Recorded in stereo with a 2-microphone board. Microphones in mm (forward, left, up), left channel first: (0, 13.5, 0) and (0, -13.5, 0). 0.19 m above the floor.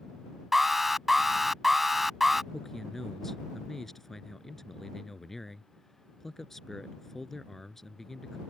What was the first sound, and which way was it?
An alarm, 10° right (ahead or behind).